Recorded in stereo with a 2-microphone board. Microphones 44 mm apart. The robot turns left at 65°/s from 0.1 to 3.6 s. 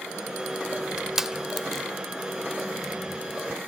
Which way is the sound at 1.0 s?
15° right (ahead or behind).